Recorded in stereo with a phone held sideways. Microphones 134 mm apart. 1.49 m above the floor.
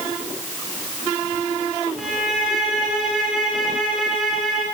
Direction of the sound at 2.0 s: Centre (ahead or behind).